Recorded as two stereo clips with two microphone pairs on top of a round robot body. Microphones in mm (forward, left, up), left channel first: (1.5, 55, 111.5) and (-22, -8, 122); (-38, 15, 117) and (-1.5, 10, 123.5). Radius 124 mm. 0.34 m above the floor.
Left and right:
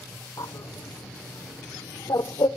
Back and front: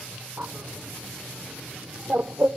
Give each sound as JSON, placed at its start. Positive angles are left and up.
{"t": 0.4, "sound": "a bird", "azimuth_deg": 40, "distance_m": 0.6}